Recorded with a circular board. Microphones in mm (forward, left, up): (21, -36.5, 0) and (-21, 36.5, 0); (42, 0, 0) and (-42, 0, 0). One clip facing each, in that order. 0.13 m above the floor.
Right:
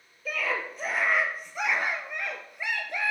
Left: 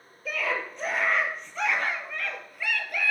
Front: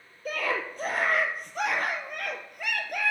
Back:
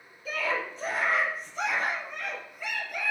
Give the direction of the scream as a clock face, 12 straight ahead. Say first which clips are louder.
Left 1 dB, front 1 dB; 11 o'clock.